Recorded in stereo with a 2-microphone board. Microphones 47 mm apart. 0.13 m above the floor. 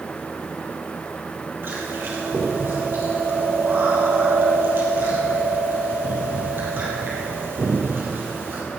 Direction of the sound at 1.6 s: 50° right (ahead or behind).